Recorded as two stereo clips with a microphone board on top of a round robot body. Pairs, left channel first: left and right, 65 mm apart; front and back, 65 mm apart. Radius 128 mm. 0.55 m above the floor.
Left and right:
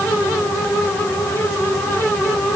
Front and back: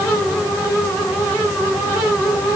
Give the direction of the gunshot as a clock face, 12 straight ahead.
No gunshot in this recording.